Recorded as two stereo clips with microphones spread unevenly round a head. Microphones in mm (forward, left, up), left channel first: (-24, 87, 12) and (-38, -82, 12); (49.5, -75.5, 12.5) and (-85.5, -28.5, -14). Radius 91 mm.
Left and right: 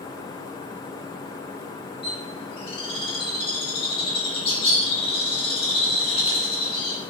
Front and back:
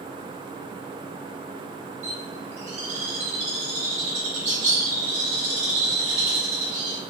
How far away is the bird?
About 1.0 m.